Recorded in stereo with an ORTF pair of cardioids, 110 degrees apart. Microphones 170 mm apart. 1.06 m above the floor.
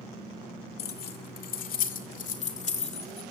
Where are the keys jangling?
65° left, 1.9 m; by 3.2 s 35° left, 2.5 m.